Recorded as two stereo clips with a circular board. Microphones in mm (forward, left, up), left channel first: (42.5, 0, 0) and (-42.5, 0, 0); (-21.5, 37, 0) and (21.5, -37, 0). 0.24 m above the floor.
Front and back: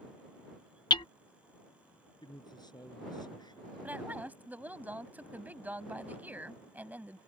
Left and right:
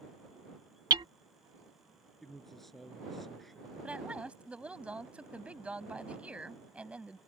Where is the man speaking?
30° left.